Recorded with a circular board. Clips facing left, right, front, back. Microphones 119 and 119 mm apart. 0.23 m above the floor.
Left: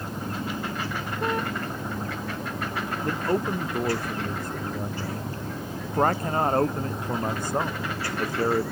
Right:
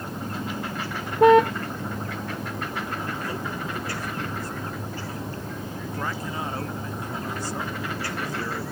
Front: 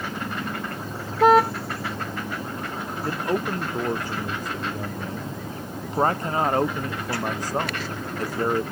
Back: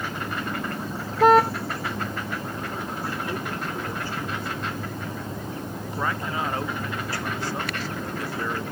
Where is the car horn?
90° right.